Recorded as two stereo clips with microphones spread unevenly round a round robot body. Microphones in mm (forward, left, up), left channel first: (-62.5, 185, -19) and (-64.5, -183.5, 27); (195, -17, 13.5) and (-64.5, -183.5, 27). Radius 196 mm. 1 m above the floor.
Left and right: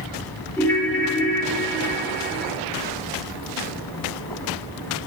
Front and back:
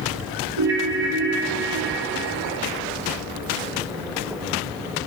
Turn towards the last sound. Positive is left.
turn(degrees=175)